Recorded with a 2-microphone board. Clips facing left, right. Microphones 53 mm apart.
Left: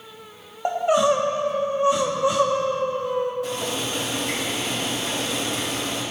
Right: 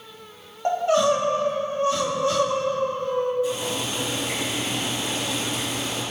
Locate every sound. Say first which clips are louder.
0.7 s crying: left 1 dB; 15° left (ahead or behind), 1.3 m
3.4 s boiling: right 1 dB; 75° left (ahead or behind), 5 m